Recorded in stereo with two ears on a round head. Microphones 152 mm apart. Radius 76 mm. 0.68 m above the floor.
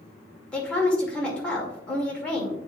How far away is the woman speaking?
About 2 m.